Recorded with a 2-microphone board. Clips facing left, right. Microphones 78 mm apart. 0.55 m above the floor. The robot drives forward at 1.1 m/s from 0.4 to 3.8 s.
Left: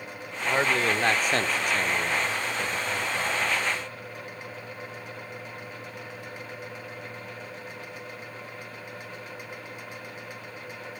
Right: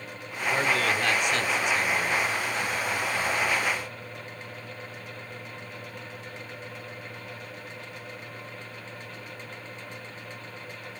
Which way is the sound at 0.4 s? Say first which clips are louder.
Left 1 dB; 25° left (ahead or behind).